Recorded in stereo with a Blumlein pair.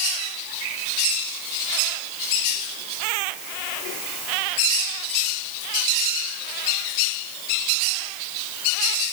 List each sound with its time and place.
Only background noise.